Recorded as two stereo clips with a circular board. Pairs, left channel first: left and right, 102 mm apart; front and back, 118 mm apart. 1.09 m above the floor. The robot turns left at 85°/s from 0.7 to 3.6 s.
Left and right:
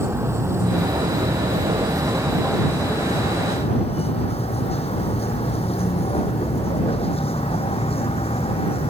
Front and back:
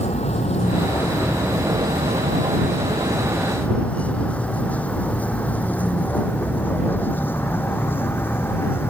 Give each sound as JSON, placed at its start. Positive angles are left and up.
{"t": 0.0, "sound": "a vehicle", "azimuth_deg": -25}